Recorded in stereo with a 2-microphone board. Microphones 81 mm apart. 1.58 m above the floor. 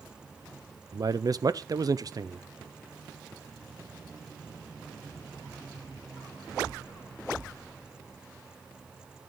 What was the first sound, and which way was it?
A man speaking, 45° right (ahead or behind).